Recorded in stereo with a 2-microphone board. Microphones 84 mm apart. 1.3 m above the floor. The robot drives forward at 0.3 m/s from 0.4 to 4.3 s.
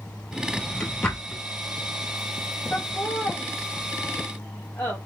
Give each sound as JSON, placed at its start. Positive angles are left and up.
{"t": 0.3, "sound": "a drawer", "side_deg": 10, "distance_m": 1.4}
{"t": 2.7, "sound": "laughter", "side_deg": 15, "distance_m": 1.4}